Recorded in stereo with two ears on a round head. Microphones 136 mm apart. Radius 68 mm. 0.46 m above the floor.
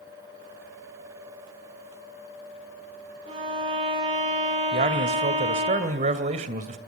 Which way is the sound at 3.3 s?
40° right (ahead or behind).